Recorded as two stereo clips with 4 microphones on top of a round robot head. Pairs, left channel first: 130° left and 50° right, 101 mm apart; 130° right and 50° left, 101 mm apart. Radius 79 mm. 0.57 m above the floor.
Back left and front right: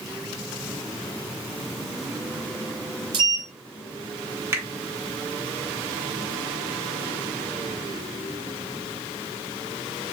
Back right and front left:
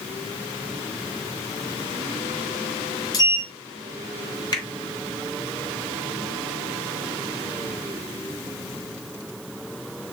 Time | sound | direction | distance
3.1 | a sliding door | 85° right | 0.8 m
4.5 | a finger snap | 105° right | 1.4 m